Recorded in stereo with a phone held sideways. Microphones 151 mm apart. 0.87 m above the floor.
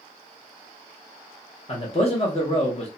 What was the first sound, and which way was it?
A man speaking, 40° left (ahead or behind).